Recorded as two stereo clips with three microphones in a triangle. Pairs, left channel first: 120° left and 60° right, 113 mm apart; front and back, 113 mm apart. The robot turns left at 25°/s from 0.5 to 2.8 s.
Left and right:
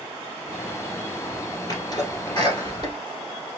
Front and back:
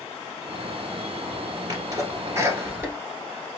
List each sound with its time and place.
1.7 s a sneeze: 150° left, 1.6 m; by 3.0 s 120° left, 1.6 m